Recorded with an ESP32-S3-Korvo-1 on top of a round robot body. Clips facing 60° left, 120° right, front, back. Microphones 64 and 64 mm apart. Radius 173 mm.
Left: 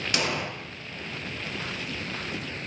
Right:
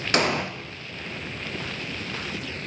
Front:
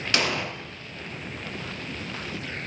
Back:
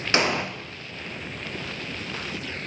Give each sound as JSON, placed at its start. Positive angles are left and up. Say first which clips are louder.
{"t": 0.1, "sound": "an explosion", "louder": "right 6 dB, back 3 dB", "azimuth_deg": -125, "distance_m": 0.9}